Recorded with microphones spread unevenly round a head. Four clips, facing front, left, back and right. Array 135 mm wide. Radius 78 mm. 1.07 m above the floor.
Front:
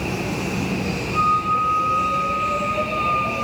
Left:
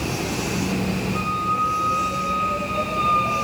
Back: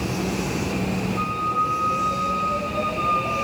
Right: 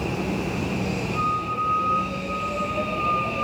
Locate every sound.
1.1 s a flute: 15° right, 7.5 m